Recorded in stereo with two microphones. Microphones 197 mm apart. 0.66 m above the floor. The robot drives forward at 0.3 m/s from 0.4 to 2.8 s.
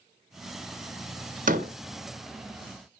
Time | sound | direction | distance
1.5 | a door slam | 45° right (ahead or behind) | 0.8 m